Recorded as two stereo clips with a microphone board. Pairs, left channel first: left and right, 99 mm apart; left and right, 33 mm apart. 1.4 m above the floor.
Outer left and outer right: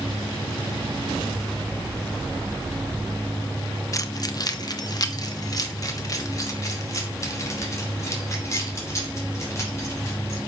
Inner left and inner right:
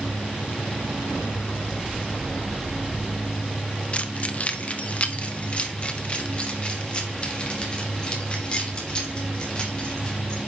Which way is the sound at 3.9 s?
35° left (ahead or behind).